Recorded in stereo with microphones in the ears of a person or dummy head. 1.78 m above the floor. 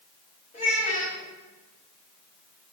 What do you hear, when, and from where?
0.5 s a child speaking: 35° left (ahead or behind), 3 m